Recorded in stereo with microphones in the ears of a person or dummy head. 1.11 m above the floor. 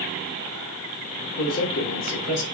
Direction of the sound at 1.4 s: 50° left (ahead or behind).